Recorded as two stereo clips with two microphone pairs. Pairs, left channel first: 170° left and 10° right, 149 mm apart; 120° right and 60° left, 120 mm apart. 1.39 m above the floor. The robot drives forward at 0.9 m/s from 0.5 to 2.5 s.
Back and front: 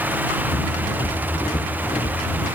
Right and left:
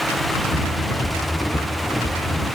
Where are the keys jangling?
I don't hear keys jangling.